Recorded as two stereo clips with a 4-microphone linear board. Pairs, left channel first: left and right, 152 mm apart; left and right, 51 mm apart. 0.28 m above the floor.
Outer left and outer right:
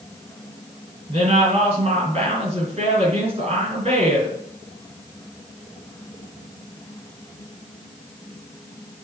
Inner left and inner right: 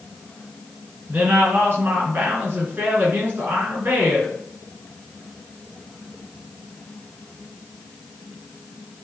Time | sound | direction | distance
1.1 | a woman speaking | 40° right (ahead or behind) | 4 m